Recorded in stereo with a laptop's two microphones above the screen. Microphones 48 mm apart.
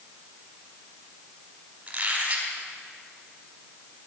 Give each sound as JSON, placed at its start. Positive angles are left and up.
{"t": 1.9, "sound": "a squeak", "side_deg": -30, "distance_m": 1.5}